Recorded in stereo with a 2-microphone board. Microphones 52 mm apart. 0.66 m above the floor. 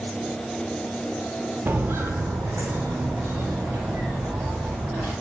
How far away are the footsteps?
About 0.8 m.